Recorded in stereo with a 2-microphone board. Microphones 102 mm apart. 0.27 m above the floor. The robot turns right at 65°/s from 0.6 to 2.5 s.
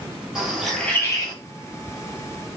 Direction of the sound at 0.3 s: 5° right (ahead or behind).